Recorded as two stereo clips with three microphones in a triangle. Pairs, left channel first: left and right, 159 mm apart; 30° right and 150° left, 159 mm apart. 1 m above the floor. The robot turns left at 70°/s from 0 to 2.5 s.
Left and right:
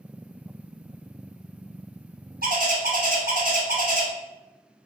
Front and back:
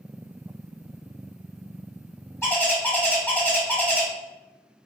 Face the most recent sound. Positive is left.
turn(degrees=-110)